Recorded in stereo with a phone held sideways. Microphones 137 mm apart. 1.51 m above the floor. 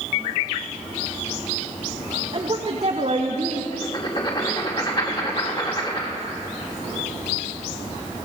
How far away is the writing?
About 5.5 m.